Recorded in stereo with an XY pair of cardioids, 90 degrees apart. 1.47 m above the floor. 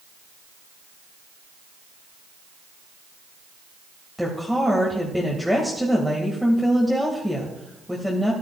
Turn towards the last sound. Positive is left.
turn(degrees=5)